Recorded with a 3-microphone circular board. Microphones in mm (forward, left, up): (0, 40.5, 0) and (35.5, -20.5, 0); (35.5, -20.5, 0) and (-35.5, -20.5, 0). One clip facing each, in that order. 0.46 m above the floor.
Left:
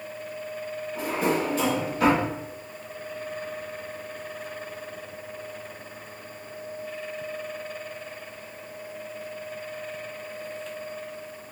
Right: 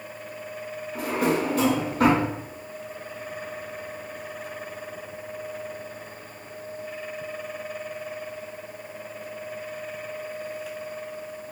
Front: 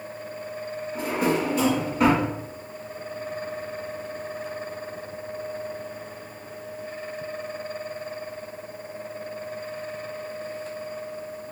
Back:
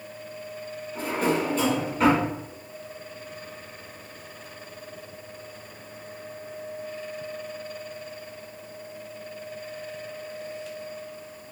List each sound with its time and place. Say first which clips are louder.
0.9 s a drawer: right 2 dB, front 1 dB; 80° right, 1.6 m